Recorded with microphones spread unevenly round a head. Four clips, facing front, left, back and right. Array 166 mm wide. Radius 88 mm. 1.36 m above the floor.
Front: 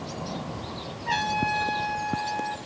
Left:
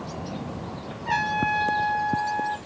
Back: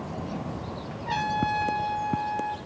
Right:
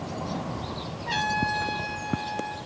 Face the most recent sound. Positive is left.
turn(degrees=50)